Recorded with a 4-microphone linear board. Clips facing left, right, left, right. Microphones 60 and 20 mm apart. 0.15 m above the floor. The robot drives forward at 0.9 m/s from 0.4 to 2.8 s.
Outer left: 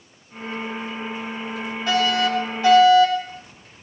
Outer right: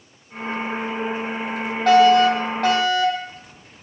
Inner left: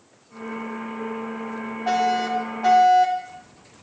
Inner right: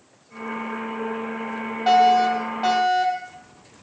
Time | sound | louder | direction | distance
1.9 | a fire alarm | outer right 8 dB, inner right 6 dB | 70° right (ahead or behind) | 8 m